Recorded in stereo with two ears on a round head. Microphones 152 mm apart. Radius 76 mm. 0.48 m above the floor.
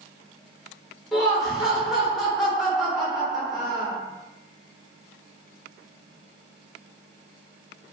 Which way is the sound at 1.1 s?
Centre (ahead or behind).